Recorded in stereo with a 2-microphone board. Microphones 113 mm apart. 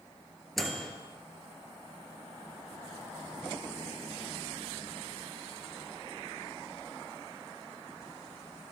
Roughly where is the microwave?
Centre.